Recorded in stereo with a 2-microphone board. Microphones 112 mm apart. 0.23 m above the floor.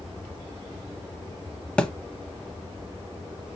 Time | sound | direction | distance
1.8 | a thud | 10° left (ahead or behind) | 0.6 m